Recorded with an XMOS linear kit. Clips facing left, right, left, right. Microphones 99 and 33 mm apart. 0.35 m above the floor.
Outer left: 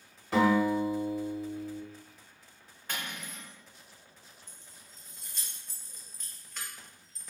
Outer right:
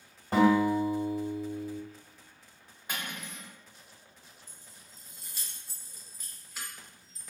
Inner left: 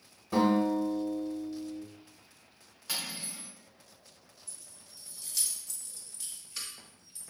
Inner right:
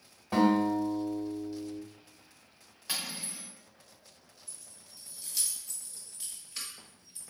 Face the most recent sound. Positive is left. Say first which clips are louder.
# even, even
turn(degrees=-10)  # may be behind; listen again after turning